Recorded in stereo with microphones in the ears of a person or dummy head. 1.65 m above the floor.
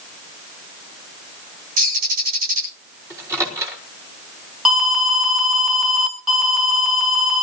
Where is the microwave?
10° right (ahead or behind), 4 m.